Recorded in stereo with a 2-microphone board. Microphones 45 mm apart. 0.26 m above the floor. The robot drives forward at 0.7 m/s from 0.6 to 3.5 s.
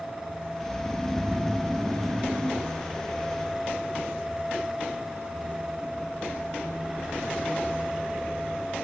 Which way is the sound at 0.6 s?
10° left (ahead or behind).